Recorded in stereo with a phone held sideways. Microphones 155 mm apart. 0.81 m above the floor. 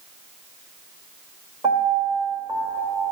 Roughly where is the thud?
No thud in this recording.